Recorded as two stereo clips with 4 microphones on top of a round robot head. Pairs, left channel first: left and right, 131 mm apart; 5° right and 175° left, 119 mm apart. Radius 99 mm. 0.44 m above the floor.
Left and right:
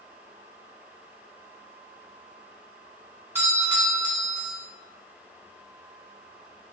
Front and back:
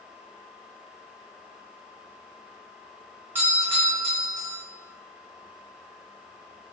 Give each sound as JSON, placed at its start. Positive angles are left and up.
{"t": 3.4, "sound": "a doorbell", "azimuth_deg": -140, "distance_m": 1.8}